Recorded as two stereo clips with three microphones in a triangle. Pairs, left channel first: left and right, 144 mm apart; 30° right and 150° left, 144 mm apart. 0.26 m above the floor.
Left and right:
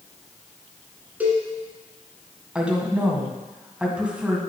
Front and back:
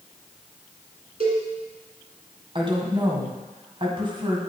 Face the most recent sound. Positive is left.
turn(degrees=-170)